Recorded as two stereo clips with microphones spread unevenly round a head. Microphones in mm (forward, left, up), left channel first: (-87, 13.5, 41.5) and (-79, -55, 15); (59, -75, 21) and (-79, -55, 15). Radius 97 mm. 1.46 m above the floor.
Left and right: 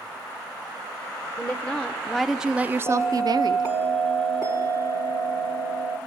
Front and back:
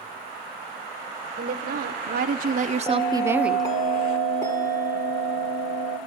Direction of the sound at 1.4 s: 160° left.